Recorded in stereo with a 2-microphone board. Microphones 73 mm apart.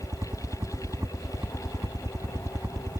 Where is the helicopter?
45° right (ahead or behind).